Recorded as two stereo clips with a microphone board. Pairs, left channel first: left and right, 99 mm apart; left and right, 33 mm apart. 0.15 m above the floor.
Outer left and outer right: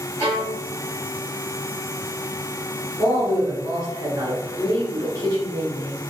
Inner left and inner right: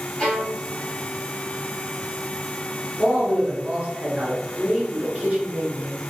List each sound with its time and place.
0.2 s a violin: 25° left (ahead or behind), 1.5 m
3.0 s a man speaking: 40° right (ahead or behind), 1.8 m